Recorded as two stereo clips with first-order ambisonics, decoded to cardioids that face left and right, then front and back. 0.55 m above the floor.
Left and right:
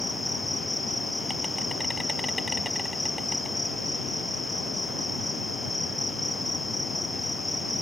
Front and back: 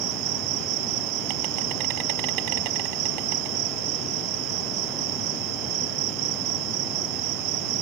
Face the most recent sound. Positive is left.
turn(degrees=175)